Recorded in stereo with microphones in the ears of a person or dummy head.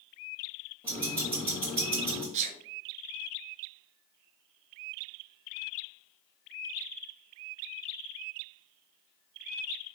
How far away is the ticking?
About 1.6 m.